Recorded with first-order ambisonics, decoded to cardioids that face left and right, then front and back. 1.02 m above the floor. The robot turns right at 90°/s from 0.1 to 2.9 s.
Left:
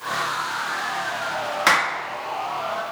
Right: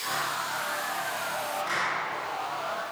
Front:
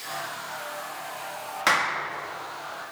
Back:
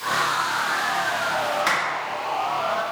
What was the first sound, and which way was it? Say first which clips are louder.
A clap: left 12 dB, even; 85° left.